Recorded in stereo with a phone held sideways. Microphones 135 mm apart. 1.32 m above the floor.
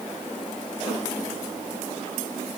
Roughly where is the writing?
No writing in this recording.